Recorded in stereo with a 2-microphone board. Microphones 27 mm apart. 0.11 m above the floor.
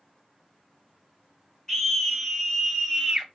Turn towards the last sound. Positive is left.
turn(degrees=-5)  # may be behind; listen again after turning